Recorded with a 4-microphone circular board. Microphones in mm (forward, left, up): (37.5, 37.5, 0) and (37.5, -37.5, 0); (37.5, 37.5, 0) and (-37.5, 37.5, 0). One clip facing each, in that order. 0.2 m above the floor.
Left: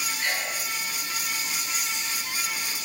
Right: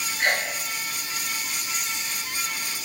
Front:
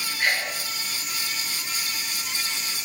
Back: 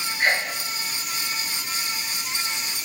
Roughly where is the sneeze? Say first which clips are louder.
Right 7 dB, back 3 dB; behind right.